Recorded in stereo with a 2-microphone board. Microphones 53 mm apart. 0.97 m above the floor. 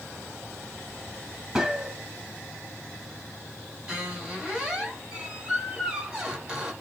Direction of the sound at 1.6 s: 10° right (ahead or behind).